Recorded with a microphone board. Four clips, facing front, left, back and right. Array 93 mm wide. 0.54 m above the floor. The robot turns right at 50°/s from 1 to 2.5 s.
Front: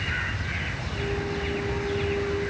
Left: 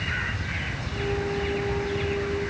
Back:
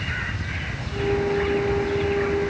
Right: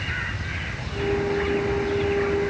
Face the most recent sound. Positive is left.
No sound to turn to.